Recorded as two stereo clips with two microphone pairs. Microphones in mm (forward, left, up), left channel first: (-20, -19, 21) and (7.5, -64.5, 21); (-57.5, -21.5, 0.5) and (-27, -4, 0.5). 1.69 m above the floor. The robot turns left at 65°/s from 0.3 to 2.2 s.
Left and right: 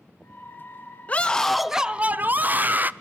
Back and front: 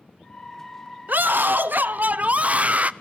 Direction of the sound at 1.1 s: 60° left.